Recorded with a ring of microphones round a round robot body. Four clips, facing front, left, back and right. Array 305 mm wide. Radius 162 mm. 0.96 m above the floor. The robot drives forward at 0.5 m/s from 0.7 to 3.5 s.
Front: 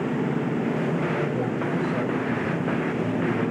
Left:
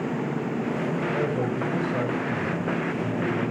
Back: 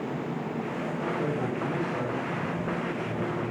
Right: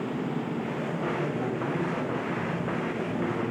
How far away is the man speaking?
About 6.5 m.